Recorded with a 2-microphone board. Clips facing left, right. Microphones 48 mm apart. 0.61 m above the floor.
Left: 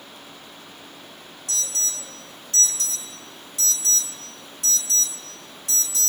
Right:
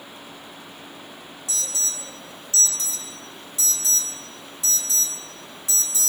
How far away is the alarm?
About 1.4 m.